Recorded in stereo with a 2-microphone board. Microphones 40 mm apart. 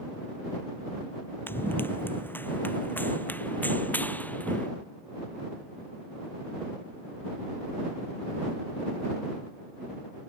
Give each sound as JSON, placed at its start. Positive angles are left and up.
{"t": 1.5, "sound": "running footsteps", "side_deg": 60}